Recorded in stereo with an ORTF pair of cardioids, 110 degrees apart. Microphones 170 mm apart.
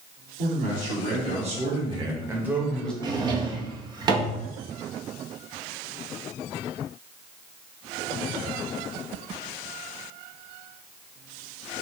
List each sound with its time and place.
0.4 s a man speaking: 60° right, 1.9 m; by 2.9 s 5° left, 1.0 m
3.0 s a drawer: 25° right, 0.6 m